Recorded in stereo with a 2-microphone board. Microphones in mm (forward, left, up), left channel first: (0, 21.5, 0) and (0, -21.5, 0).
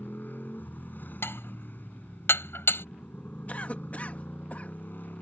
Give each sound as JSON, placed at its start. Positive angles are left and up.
{"t": 0.0, "sound": "a motorcycle", "side_deg": 55}
{"t": 1.2, "sound": "dishes clattering", "side_deg": 90}
{"t": 3.5, "sound": "a cough", "side_deg": 40}